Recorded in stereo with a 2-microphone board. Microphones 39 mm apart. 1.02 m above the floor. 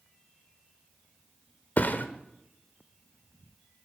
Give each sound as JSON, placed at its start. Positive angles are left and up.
{"t": 1.8, "sound": "a thud", "side_deg": 45, "distance_m": 1.0}